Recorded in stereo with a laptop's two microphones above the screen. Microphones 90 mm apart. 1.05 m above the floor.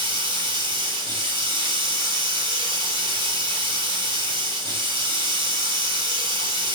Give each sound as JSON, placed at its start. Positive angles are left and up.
{"t": 0.0, "sound": "running water", "side_deg": -65, "distance_m": 3.5}